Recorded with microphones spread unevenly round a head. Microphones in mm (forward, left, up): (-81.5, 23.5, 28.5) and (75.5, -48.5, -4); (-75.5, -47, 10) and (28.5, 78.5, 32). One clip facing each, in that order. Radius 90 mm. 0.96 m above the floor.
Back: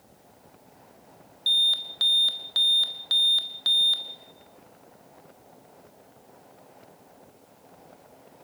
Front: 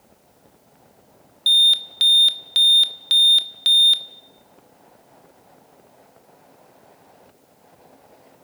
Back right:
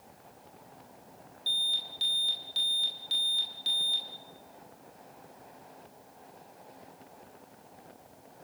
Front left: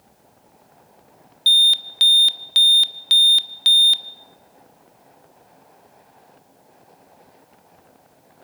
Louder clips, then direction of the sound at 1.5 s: Front 6 dB, front left 15 dB; 35° left.